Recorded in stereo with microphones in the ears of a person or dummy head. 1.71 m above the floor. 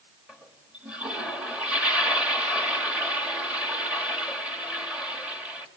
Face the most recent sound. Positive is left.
turn(degrees=-5)  # may be behind; listen again after turning